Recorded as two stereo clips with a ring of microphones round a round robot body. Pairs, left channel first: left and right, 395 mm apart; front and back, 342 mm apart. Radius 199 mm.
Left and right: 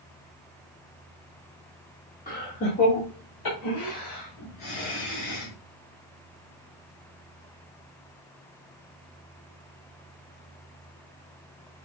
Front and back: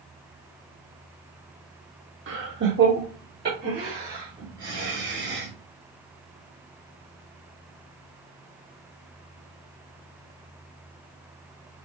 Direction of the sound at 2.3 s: 150° left.